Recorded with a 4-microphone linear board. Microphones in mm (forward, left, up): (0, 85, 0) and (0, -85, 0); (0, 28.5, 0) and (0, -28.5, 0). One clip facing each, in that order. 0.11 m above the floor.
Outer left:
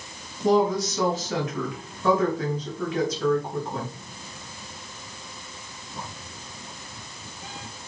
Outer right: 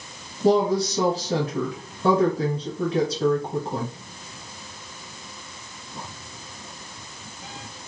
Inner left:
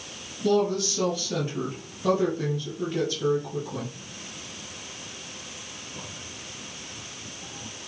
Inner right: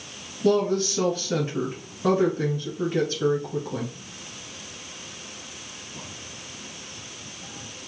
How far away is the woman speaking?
About 1.4 m.